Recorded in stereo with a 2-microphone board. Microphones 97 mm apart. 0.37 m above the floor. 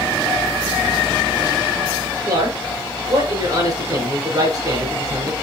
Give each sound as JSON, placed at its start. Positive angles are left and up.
{"t": 2.3, "sound": "a man speaking", "side_deg": -40, "distance_m": 5.5}